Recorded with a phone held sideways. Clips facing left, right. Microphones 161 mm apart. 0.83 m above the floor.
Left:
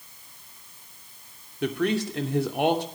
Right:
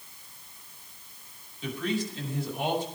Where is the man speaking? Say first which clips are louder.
Left 6 dB; 70° left (ahead or behind), 2.5 m.